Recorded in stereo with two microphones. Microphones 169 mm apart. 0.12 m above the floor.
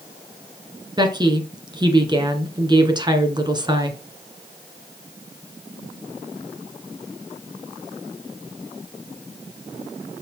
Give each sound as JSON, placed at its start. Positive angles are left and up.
{"t": 1.0, "sound": "a woman speaking", "side_deg": -25, "distance_m": 1.6}